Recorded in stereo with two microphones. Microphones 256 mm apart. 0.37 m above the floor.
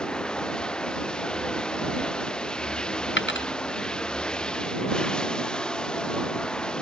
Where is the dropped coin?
45° left (ahead or behind).